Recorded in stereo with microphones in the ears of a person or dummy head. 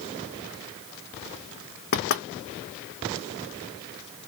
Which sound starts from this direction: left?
Knocking, at 1.9 s.